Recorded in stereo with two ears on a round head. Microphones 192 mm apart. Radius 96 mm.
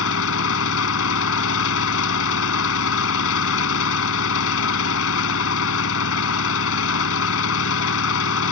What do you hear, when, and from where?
0.0 s an engine running: 70° left (ahead or behind)